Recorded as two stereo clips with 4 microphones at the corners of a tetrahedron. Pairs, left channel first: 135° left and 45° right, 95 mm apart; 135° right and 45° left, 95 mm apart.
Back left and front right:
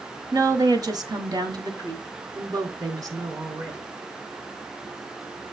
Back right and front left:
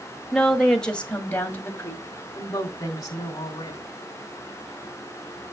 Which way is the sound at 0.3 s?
45° right.